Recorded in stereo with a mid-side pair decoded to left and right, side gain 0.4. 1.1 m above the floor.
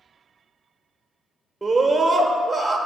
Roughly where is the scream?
Ahead right.